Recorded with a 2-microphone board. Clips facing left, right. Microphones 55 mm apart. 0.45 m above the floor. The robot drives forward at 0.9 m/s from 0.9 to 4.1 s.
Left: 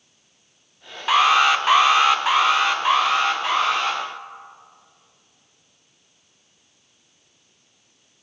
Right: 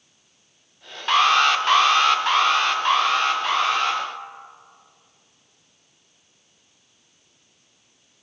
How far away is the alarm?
About 0.8 m.